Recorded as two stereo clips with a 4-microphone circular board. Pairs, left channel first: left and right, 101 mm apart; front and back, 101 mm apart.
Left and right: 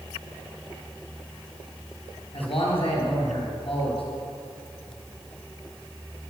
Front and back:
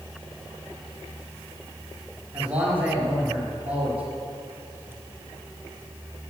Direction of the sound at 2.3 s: 105° left.